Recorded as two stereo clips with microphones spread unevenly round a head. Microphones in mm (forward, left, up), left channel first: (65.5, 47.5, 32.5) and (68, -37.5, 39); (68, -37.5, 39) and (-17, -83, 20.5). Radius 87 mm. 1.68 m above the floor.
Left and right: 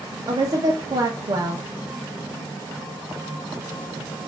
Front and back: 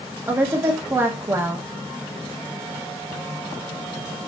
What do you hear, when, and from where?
0.3 s a woman speaking: 80° right, 0.7 m